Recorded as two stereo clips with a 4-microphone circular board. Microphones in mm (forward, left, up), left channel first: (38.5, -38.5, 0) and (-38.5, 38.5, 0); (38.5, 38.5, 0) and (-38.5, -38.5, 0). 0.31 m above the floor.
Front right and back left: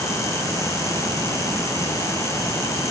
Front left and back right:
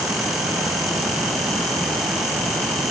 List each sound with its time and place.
Only background noise.